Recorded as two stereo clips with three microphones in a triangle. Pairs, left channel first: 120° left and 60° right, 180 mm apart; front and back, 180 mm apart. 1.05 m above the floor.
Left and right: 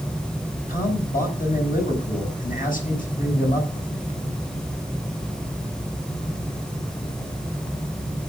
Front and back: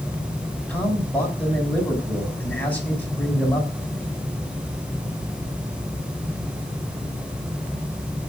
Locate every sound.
0.7 s a man speaking: 80° left, 7 m